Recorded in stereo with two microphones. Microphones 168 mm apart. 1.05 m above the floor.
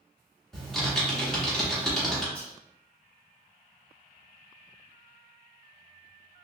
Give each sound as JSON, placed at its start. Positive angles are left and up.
{"t": 0.5, "sound": "typing on a keyboard", "side_deg": 5, "distance_m": 1.2}
{"t": 2.4, "sound": "whispering", "side_deg": 10, "distance_m": 1.1}